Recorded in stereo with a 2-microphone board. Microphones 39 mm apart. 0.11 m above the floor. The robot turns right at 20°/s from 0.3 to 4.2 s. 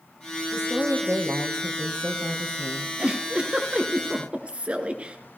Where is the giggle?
30° right (ahead or behind), 1.0 m; by 5.2 s 35° right (ahead or behind), 1.0 m.